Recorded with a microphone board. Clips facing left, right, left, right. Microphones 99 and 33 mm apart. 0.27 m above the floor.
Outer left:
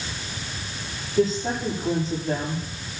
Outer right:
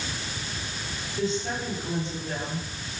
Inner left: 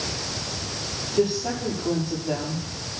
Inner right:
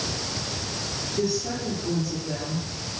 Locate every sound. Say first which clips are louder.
1.2 s a woman speaking: outer left 6 dB, inner left 4 dB; 40° left (ahead or behind), 8.5 m